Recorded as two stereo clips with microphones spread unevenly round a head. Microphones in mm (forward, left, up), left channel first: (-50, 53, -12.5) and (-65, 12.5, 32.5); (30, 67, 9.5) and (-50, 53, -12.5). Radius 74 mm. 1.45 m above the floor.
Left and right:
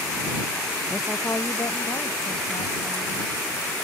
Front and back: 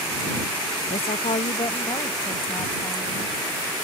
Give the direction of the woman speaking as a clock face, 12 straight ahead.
12 o'clock.